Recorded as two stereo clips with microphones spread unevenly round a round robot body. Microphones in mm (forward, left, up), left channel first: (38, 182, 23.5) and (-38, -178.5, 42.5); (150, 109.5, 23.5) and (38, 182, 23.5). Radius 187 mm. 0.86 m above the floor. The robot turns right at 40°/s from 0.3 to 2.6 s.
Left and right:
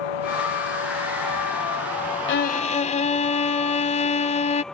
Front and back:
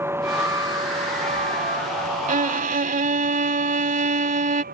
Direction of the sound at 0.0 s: 75° left.